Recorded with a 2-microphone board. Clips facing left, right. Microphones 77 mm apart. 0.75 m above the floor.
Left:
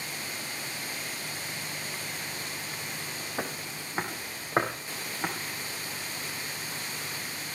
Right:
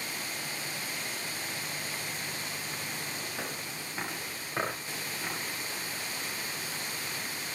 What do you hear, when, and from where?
3.4 s footsteps: 35° left (ahead or behind), 4.5 m; by 5.3 s 55° left (ahead or behind), 6.5 m